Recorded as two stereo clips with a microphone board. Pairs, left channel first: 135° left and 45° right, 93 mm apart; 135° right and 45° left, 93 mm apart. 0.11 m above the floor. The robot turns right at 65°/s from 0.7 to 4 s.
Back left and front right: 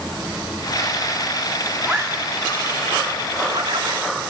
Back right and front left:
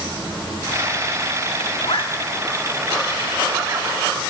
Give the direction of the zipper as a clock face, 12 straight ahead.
5 o'clock.